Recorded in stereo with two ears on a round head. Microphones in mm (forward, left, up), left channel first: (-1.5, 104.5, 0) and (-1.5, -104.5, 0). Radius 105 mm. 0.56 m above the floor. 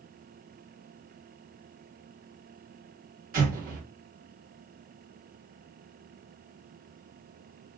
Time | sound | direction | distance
3.3 | an explosion | 40° right (ahead or behind) | 1.0 m